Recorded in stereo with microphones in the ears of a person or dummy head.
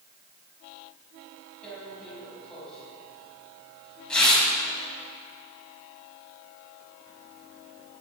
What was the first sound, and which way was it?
Tearing paper, 5° left (ahead or behind).